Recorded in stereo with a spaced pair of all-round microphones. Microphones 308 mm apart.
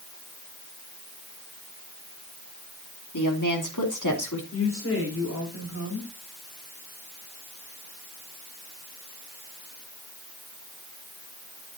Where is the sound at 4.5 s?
45° left (ahead or behind), 5.5 m.